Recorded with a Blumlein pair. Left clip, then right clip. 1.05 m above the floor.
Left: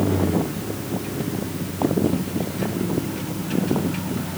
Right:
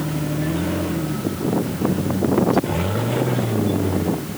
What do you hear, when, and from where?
Only background noise.